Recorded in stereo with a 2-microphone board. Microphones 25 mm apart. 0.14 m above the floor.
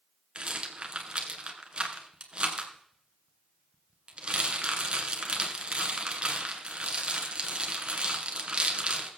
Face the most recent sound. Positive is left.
turn(degrees=-45)  # may be behind; listen again after turning